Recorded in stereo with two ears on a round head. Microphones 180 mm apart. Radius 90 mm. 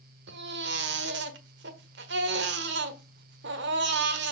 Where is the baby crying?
65° right (ahead or behind), 1.3 m.